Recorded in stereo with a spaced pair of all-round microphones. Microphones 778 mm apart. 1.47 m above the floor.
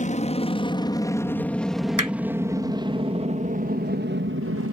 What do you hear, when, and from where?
0.0 s an aircraft: 10° left (ahead or behind); by 4.7 s 20° right (ahead or behind)
2.0 s hammering: 25° right (ahead or behind)